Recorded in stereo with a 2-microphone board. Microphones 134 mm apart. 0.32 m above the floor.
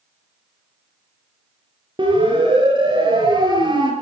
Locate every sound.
2.0 s a siren: 35° right (ahead or behind), 6 m